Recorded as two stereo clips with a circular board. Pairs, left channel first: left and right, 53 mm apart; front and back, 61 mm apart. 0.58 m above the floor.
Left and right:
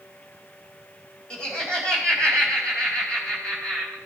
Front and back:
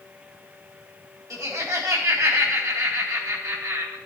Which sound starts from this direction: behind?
Laughter, at 1.3 s.